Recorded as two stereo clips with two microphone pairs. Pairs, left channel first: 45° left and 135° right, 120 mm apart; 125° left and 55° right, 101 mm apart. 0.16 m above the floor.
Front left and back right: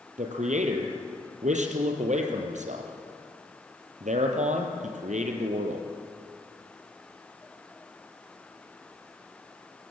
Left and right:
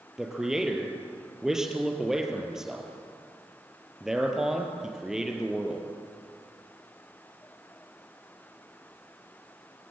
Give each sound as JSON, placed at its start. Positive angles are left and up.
{"t": 0.2, "sound": "a man speaking", "azimuth_deg": -140, "distance_m": 3.5}